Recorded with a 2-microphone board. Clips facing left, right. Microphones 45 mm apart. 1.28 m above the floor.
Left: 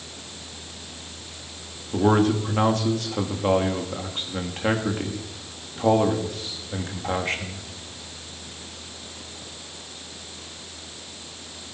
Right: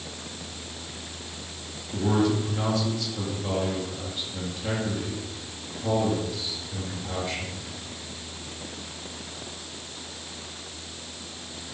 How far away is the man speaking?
About 2.5 m.